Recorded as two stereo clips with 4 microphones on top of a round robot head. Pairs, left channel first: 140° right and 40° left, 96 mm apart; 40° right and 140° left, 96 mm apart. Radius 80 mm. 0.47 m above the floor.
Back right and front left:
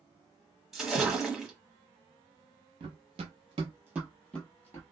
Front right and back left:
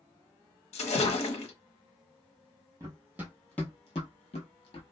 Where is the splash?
45° right, 0.9 m.